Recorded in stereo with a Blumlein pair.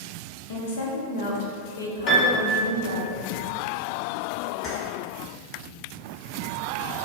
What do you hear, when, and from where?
0.5 s a woman speaking: 60° left, 0.7 m
2.1 s a piano: 40° left, 0.9 m
4.6 s keys jangling: 15° left, 1.1 m